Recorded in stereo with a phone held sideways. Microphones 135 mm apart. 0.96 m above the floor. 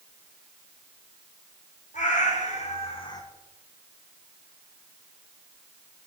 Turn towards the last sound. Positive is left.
turn(degrees=25)  # may be behind; listen again after turning